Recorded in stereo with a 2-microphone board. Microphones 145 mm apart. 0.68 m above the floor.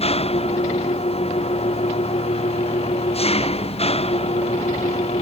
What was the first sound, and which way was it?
An engine running, 45° left (ahead or behind).